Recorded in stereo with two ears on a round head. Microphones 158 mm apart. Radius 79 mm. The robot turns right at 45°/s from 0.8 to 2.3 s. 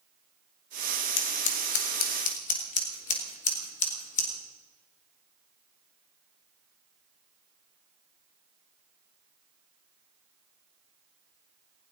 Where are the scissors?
75° left (ahead or behind), 2.5 m; by 4.3 s 45° left (ahead or behind), 2.5 m.